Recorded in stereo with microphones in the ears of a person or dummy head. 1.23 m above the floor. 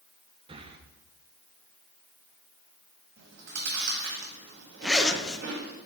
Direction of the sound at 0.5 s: 25° right (ahead or behind).